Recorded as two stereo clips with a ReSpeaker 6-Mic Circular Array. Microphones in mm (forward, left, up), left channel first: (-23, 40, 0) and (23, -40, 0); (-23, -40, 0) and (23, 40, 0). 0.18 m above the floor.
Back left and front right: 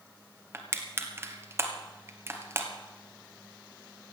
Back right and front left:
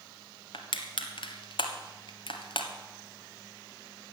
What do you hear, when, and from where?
0.5 s crushing: 120° right, 1.6 m